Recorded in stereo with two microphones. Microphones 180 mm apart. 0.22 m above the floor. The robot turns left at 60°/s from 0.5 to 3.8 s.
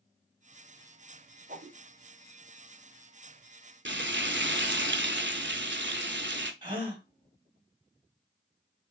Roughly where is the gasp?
Right.